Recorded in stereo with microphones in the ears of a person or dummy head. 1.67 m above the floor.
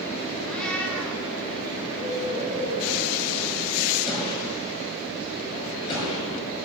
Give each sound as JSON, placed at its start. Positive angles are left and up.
{"t": 0.5, "sound": "a cat meowing", "side_deg": 5, "distance_m": 3.5}
{"t": 1.9, "sound": "a bird", "side_deg": -20, "distance_m": 6.0}
{"t": 4.1, "sound": "a gunshot", "side_deg": 25, "distance_m": 6.5}